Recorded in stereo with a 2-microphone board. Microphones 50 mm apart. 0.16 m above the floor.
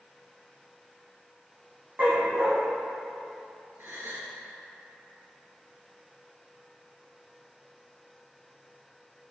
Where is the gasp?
50° right (ahead or behind), 1.7 m.